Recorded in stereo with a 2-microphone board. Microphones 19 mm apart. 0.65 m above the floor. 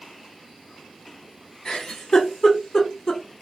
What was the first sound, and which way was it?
A giggle, 45° left (ahead or behind).